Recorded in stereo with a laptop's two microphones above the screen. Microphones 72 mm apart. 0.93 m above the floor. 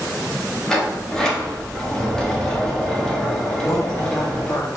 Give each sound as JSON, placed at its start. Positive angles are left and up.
{"t": 0.7, "sound": "a sliding door", "side_deg": 10, "distance_m": 0.9}
{"t": 3.6, "sound": "a woman speaking", "side_deg": 45, "distance_m": 0.5}